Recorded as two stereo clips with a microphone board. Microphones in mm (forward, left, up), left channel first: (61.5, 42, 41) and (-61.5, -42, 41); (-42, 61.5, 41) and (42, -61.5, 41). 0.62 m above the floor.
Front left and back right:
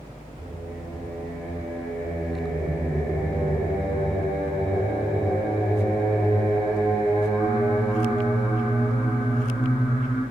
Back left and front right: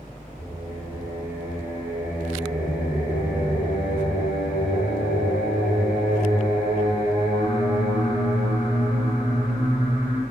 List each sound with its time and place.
0.4 s singing: 115° left, 0.9 m